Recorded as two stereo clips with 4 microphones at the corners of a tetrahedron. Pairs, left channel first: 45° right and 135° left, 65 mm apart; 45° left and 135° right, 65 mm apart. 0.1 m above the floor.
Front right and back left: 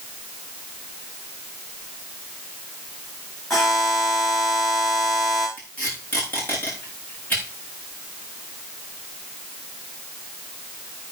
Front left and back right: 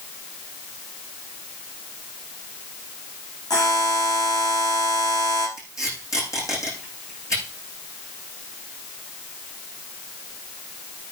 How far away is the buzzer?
About 7.5 m.